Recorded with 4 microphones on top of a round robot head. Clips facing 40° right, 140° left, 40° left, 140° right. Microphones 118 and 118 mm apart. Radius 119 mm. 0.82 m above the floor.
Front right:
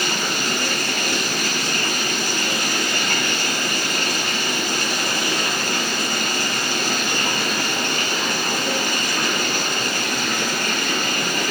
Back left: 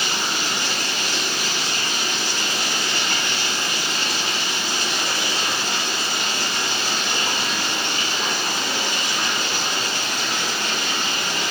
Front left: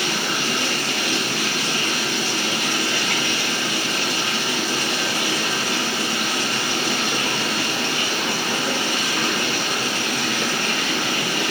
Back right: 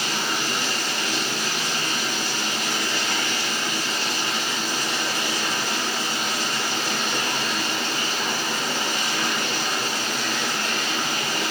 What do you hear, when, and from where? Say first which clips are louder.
0.0 s running water: front right 2 dB, front left 3 dB; 10° left, 3.5 m